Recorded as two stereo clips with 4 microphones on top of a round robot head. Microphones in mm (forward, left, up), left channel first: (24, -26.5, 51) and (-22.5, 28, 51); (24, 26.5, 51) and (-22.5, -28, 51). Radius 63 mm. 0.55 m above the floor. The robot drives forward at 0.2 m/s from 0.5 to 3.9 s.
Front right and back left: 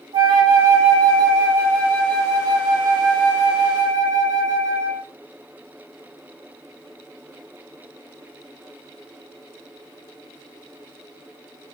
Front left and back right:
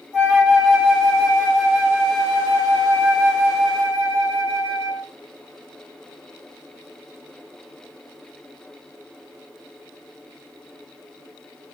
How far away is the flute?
About 3.5 m.